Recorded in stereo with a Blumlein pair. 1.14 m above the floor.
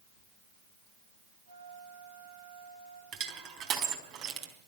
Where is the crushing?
40° right, 4 m.